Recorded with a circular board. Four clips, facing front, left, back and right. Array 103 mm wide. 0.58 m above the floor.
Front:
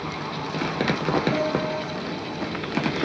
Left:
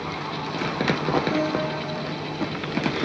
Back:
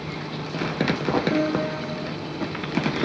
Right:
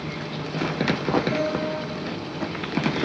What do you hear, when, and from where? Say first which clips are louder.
1.3 s a piano: left 1 dB, back 1 dB; 150° left, 1.7 m